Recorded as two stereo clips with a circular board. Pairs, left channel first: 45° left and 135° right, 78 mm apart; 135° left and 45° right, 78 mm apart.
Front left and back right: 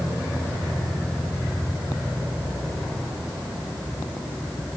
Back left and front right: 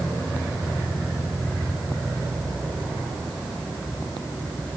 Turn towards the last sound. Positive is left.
No sound to turn to.